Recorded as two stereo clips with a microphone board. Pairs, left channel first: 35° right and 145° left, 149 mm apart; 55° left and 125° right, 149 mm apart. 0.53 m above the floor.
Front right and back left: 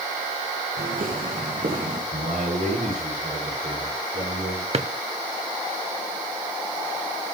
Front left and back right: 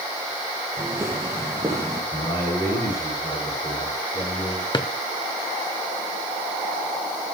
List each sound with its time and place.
0.8 s footsteps: 165° left, 3.5 m
2.1 s a man speaking: 120° left, 9.5 m
4.7 s a drawer: 110° left, 0.7 m